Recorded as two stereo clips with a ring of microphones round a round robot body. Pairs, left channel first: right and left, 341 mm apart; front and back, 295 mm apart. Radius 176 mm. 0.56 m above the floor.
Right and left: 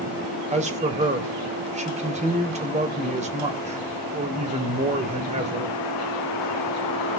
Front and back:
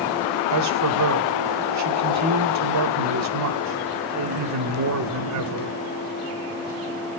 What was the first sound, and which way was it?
A man speaking, 160° left.